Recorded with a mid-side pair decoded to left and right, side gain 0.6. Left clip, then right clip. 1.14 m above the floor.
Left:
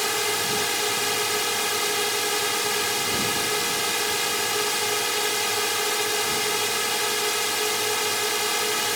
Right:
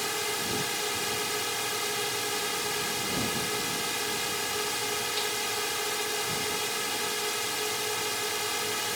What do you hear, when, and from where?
0.0 s a drone: 35° left